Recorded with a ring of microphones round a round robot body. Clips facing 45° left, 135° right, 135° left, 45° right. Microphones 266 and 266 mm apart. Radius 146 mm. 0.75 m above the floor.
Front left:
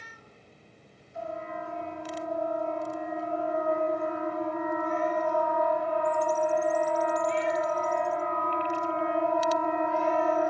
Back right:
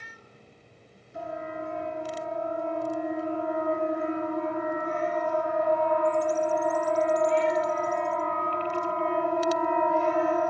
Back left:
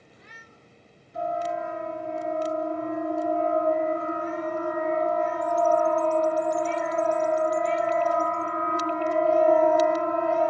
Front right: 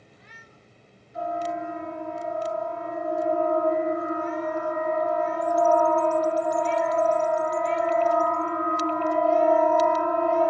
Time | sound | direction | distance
1.1 | a siren | 165° right | 9.5 m